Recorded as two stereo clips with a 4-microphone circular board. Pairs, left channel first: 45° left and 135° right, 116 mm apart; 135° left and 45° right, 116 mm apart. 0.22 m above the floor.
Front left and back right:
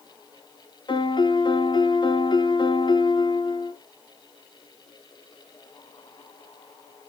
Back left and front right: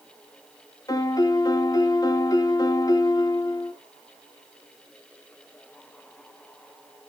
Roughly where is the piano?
Left.